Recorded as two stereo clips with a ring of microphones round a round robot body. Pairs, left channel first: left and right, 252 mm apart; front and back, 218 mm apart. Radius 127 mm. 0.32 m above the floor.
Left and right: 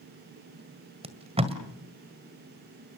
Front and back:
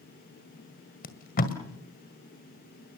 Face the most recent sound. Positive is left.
turn(degrees=-30)